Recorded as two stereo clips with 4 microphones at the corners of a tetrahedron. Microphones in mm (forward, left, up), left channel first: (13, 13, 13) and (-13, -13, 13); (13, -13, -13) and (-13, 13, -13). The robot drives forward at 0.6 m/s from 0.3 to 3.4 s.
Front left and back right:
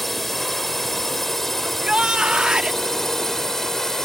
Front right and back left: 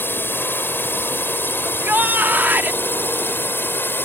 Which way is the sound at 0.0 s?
40° right.